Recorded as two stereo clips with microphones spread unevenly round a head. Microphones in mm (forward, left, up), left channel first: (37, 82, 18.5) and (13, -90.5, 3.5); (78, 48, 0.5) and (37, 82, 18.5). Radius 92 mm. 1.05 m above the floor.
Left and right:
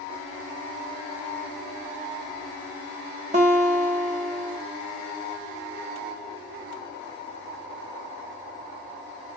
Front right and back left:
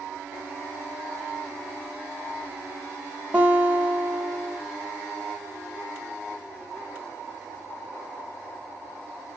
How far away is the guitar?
About 0.8 m.